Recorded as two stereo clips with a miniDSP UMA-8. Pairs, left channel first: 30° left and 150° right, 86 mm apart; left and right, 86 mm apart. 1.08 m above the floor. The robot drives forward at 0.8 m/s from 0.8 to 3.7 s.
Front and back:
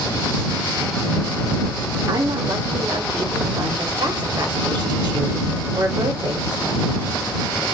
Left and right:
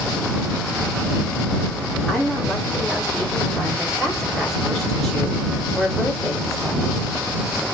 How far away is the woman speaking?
About 3.5 m.